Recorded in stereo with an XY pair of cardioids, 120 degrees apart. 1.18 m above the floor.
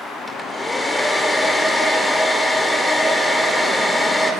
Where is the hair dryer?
10° left, 5 m.